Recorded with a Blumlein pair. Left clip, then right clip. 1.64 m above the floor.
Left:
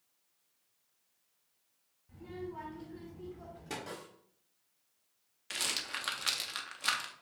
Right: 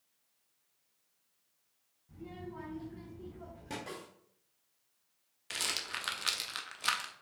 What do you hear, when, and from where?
2.1 s a child speaking: straight ahead, 1.9 m
3.9 s a snare drum: 5° right, 3 m
5.5 s a rattle: straight ahead, 0.6 m